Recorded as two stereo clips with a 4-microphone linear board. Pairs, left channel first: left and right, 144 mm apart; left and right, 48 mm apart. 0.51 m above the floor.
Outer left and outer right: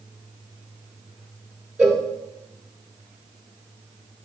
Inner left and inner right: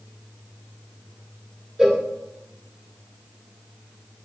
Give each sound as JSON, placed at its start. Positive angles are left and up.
{"t": 1.8, "sound": "a cowbell", "side_deg": -10, "distance_m": 1.7}